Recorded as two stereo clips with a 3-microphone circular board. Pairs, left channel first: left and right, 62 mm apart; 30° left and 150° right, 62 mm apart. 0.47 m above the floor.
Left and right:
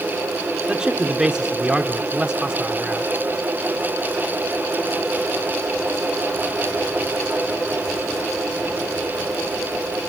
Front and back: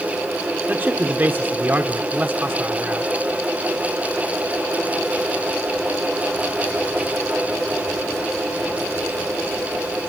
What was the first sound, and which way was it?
A man speaking, 155° right.